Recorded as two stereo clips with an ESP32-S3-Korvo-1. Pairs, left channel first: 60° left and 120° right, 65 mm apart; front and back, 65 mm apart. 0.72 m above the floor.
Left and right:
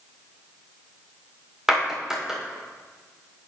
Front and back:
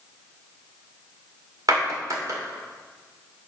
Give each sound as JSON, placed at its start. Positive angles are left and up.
{"t": 1.7, "sound": "a clap", "azimuth_deg": 160, "distance_m": 2.0}